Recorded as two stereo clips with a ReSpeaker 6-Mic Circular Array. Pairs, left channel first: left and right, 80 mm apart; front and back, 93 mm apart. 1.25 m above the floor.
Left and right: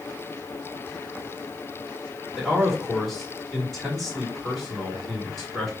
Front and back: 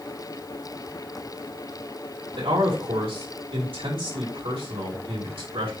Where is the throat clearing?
I don't hear throat clearing.